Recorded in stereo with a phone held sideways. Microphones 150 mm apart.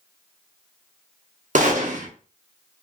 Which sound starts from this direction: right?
A gunshot, at 1.6 s.